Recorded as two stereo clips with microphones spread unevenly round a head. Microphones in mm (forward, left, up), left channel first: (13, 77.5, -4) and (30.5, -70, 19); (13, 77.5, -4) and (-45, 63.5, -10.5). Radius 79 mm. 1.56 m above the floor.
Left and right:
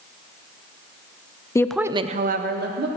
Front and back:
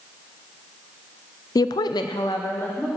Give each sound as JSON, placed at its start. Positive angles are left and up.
{"t": 1.6, "sound": "a woman speaking", "azimuth_deg": 25, "distance_m": 0.7}